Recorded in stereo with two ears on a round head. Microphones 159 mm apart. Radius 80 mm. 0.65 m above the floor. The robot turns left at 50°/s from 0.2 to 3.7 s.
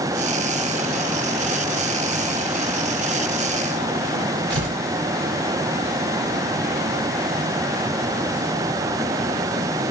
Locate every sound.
4.5 s tearing paper: 75° right (ahead or behind), 2 m